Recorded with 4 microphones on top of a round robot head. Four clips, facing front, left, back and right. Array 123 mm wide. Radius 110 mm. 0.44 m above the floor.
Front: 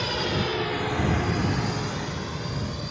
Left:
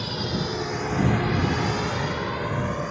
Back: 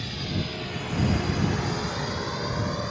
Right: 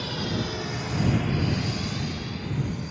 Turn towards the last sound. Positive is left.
turn(degrees=120)